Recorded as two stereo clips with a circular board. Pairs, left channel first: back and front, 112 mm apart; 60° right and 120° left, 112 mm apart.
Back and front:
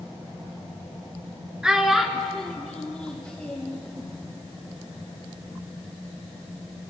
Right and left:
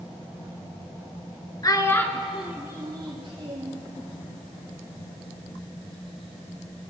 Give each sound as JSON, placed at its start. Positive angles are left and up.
{"t": 1.6, "sound": "a child speaking", "azimuth_deg": -80, "distance_m": 0.9}